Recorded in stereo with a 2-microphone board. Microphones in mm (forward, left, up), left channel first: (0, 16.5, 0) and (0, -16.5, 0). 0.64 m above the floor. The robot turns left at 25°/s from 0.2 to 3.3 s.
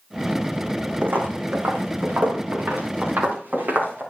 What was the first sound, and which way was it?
Footsteps, 70° right (ahead or behind).